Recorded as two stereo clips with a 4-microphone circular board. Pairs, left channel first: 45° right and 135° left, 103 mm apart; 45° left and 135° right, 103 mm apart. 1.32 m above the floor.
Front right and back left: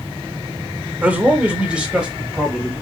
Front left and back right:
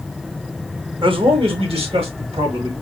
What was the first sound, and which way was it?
A man speaking, 150° right.